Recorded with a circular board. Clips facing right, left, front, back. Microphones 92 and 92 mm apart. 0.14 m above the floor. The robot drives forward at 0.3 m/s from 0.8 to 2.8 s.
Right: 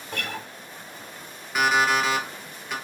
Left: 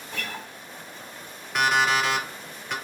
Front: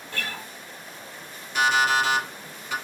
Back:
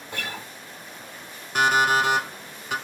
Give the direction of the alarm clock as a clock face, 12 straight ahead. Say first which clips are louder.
Right 1 dB, back 1 dB; 6 o'clock.